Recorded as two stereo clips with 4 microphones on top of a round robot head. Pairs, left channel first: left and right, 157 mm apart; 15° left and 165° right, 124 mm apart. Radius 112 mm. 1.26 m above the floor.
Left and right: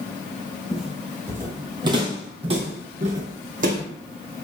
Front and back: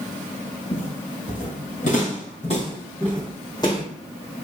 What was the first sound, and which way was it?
Footsteps, straight ahead.